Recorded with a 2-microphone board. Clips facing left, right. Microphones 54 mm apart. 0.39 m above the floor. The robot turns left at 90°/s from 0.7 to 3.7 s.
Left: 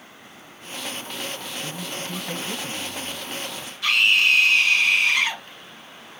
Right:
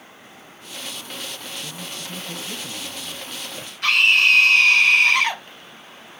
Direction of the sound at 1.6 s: 135° left.